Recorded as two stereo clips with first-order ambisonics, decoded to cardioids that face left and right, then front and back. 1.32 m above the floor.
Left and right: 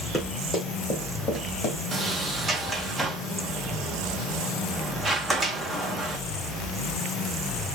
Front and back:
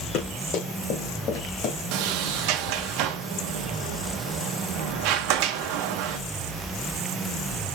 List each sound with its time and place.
0.1 s running footsteps: 10° left, 2.5 m; by 1.8 s 35° left, 2 m
1.9 s a sliding door: 175° right, 0.7 m